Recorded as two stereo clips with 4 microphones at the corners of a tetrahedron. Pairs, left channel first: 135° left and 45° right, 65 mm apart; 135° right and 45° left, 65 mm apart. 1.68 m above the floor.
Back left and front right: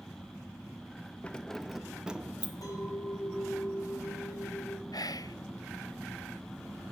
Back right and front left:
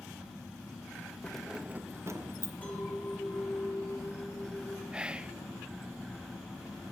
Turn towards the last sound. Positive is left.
turn(degrees=120)